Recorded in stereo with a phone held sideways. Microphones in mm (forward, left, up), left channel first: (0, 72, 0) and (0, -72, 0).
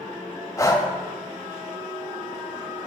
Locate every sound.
0.6 s breathing: 20° left (ahead or behind), 0.6 m